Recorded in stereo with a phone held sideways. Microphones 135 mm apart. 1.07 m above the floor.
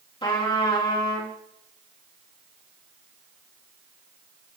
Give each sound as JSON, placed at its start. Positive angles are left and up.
{"t": 0.2, "sound": "a trumpet", "side_deg": 35, "distance_m": 2.5}